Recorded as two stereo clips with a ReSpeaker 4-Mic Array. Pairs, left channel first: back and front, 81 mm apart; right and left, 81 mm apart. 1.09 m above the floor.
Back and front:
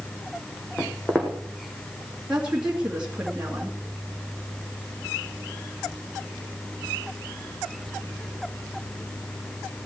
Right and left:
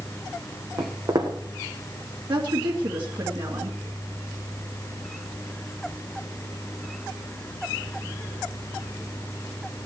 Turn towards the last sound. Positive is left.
turn(degrees=80)